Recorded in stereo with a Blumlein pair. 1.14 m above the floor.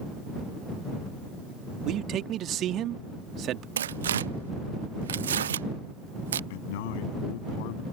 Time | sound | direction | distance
1.9 | a man speaking | 30° right | ?
3.8 | tearing paper | 65° right | ?
6.5 | a man speaking | 50° left | ?